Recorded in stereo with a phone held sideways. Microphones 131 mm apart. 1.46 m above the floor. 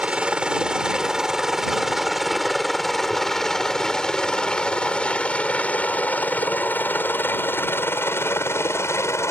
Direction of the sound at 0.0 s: 10° right (ahead or behind).